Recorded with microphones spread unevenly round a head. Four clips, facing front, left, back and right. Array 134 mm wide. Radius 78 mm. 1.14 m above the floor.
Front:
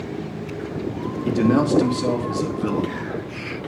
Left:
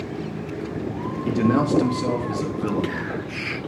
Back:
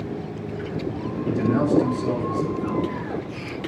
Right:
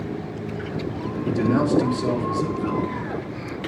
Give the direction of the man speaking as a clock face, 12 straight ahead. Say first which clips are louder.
Left 1 dB, front 3 dB; 11 o'clock.